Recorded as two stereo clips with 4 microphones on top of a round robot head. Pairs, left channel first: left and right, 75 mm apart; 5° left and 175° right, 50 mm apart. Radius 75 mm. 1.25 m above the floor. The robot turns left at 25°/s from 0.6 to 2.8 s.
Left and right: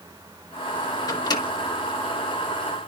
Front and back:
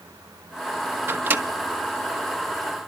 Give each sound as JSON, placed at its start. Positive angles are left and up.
{"t": 1.1, "sound": "a microwave", "azimuth_deg": 140, "distance_m": 1.5}